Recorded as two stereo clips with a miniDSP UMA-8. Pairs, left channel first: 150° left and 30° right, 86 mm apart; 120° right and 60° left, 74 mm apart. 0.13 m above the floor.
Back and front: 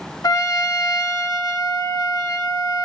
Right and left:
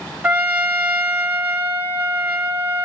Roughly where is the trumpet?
Behind left.